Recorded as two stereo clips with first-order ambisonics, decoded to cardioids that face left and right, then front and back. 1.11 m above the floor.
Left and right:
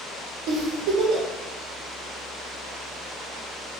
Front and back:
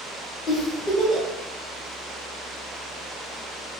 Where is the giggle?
60° right, 1.0 m.